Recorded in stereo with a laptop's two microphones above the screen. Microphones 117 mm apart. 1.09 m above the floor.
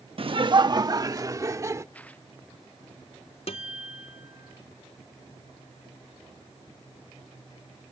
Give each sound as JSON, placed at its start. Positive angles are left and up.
{"t": 0.2, "sound": "laughter", "side_deg": -50}
{"t": 1.9, "sound": "tearing paper", "side_deg": 10}
{"t": 3.5, "sound": "a guitar", "side_deg": 65}